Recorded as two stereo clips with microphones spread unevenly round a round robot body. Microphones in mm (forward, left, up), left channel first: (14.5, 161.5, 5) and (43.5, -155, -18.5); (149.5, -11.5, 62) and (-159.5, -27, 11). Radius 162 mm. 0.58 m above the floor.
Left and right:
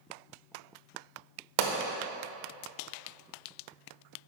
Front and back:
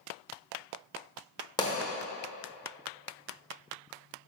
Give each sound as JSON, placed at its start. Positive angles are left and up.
{"t": 1.6, "sound": "a pop", "azimuth_deg": -75, "distance_m": 1.0}